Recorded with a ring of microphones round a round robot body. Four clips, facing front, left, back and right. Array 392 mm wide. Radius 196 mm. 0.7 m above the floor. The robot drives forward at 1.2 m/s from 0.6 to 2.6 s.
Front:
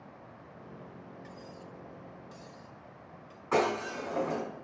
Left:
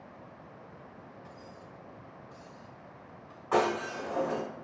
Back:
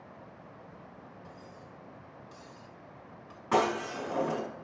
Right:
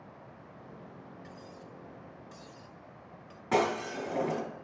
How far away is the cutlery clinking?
About 1.5 m.